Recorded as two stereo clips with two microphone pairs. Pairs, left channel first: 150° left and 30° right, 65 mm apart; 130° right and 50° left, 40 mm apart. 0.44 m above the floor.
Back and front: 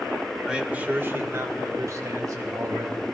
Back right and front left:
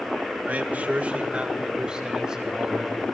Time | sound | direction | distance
0.5 | a man speaking | 45° left | 1.2 m